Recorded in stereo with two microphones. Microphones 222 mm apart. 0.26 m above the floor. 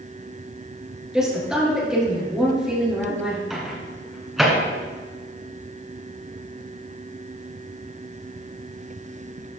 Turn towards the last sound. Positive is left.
turn(degrees=0)  # may be behind; listen again after turning